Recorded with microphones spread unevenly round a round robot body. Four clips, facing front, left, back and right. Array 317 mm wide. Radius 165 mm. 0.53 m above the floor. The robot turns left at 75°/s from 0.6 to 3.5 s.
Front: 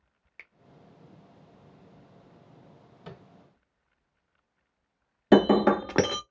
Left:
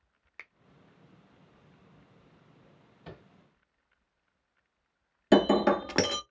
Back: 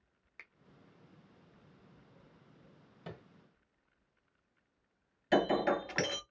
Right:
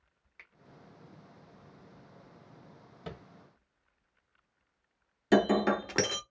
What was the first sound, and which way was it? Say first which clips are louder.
A finger snap: left 6 dB, front 4 dB; 45° left.